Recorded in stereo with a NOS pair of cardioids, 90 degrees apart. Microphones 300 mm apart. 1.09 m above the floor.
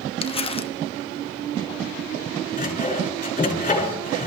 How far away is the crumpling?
About 0.9 m.